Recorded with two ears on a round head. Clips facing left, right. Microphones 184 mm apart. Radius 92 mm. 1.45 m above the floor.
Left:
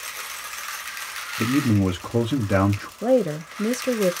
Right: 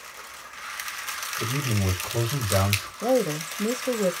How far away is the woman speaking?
About 0.5 m.